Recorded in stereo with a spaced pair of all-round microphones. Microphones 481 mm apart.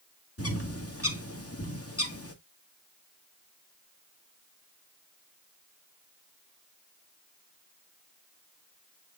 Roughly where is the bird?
Left.